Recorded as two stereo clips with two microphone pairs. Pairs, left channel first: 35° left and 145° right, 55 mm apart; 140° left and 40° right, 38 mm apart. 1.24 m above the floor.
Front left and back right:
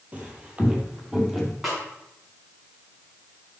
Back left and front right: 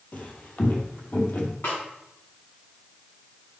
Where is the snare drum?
135° left, 6 m.